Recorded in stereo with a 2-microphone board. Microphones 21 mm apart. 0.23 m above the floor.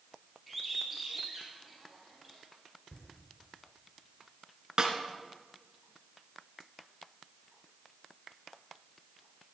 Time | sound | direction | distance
0.5 | a bird | 5° right (ahead or behind) | 2.5 m
2.9 | laughter | 45° left (ahead or behind) | 3.5 m
4.8 | a snare drum | 35° right (ahead or behind) | 1.2 m